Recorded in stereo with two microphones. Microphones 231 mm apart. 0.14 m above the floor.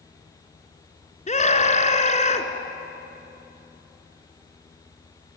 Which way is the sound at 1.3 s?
30° left (ahead or behind).